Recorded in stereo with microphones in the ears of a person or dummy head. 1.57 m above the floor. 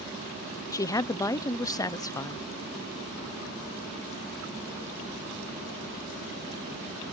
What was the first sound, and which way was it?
A woman speaking, 15° left (ahead or behind).